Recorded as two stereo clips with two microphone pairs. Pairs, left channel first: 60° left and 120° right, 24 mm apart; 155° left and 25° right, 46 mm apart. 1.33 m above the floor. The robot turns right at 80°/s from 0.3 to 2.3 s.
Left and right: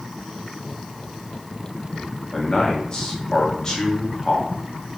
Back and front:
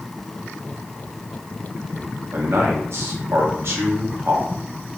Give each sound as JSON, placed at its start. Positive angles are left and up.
{"t": 2.3, "sound": "a man speaking", "azimuth_deg": 0, "distance_m": 1.1}